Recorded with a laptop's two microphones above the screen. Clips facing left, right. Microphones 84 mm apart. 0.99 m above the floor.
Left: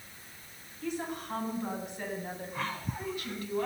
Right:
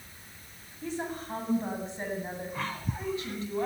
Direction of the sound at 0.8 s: 35° right (ahead or behind).